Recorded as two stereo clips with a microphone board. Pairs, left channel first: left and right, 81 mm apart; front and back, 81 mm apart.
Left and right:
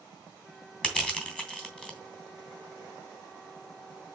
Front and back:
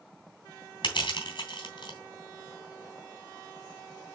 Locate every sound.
0.8 s crushing: 10° left, 2.5 m